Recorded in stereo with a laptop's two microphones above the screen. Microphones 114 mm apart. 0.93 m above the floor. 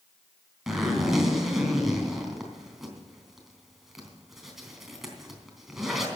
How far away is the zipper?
About 3.5 m.